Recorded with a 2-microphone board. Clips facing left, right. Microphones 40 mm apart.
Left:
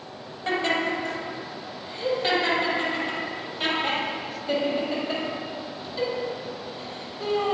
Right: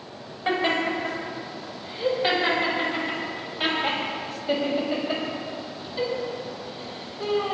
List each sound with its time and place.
0.5 s laughter: 20° right (ahead or behind), 6.5 m; by 7.5 s 5° right (ahead or behind), 9.5 m